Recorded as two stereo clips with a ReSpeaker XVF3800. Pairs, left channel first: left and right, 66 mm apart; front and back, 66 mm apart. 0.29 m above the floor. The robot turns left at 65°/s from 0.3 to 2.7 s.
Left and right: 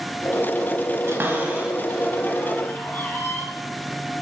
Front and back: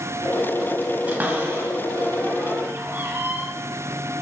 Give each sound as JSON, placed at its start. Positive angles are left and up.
{"t": 1.1, "sound": "a cupboard door", "azimuth_deg": -120, "distance_m": 1.7}